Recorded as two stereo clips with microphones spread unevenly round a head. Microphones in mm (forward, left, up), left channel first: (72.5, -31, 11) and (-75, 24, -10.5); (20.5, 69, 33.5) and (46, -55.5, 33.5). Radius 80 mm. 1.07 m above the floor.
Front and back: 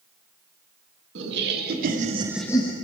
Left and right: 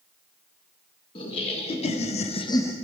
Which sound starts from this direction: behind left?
Laughter, at 1.1 s.